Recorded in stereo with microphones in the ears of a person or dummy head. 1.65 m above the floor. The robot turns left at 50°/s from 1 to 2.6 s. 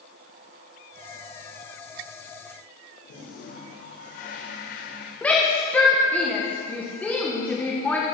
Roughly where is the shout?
Centre.